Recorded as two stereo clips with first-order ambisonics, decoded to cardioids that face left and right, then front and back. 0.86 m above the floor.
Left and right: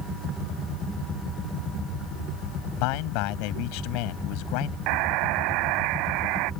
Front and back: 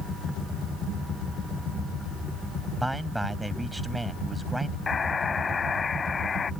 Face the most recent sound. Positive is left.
turn(degrees=-70)